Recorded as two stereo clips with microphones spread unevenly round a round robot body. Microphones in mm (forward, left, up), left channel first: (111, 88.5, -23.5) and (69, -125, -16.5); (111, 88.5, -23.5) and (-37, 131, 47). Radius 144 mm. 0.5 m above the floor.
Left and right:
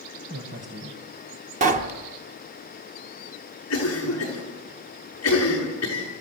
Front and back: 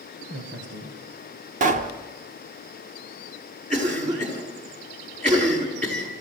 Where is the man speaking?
150° right, 2 m.